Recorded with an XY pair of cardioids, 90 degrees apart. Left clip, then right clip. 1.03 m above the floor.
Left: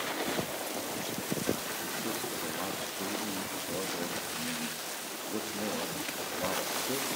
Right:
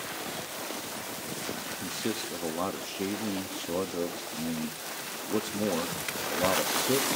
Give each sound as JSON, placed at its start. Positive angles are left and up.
{"t": 1.8, "sound": "a man speaking", "azimuth_deg": -60, "distance_m": 1.3}